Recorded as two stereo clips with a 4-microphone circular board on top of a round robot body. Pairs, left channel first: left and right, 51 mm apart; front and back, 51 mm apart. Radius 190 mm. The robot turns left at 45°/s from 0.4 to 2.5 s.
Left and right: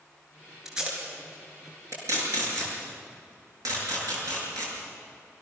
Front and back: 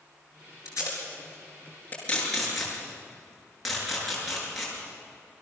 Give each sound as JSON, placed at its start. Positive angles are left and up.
{"t": 0.7, "sound": "tape being pulled", "azimuth_deg": -5, "distance_m": 7.0}